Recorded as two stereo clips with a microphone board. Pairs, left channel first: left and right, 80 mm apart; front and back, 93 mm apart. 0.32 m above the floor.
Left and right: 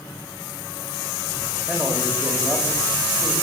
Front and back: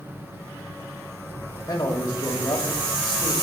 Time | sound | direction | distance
1.7 | a man speaking | 15° left | 1.6 m